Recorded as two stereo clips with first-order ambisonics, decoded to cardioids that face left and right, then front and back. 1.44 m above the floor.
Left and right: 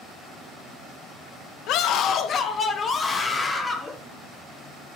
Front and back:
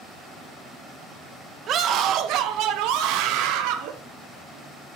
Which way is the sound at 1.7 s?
125° left.